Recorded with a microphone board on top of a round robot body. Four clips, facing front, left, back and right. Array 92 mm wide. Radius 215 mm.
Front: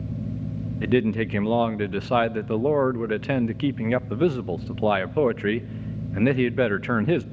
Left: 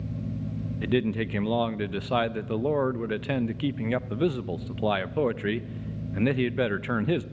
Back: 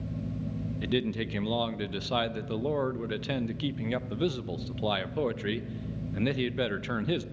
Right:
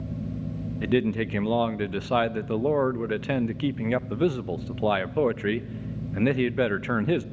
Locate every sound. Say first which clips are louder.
0.8 s a man speaking: right 2 dB, front 9 dB; 20° right, 0.7 m